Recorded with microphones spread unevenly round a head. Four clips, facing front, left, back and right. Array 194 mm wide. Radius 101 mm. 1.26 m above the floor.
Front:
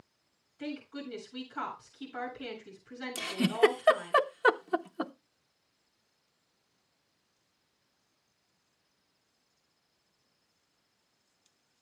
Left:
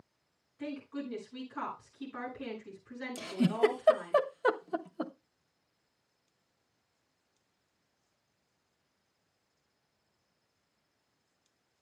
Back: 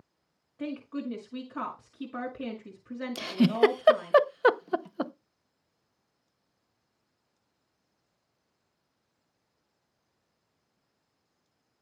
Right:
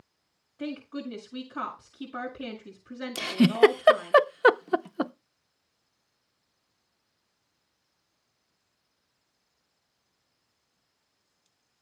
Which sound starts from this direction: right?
A giggle, at 3.1 s.